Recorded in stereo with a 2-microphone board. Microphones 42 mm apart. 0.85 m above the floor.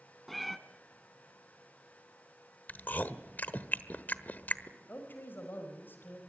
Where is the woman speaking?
50° left (ahead or behind), 4.5 m.